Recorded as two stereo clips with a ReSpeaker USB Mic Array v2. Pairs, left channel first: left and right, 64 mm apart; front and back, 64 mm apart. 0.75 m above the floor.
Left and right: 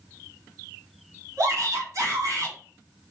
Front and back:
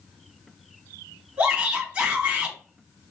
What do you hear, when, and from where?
1.4 s a shout: 120° right, 1.4 m